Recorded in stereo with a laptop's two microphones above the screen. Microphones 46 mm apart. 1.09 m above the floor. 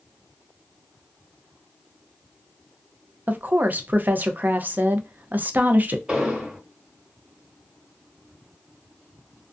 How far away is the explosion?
About 1.3 m.